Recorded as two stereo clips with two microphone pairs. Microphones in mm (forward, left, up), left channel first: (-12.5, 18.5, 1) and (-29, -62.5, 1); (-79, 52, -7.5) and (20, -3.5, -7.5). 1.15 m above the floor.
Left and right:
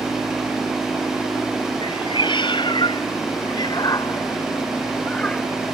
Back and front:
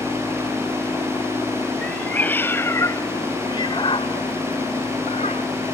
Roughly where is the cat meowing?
Left.